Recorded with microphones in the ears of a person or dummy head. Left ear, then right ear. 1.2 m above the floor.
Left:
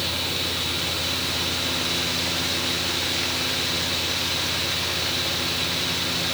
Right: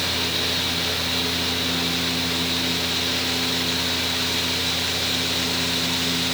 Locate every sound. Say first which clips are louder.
0.0 s a fan: right 2 dB; 5° right (ahead or behind), 3 m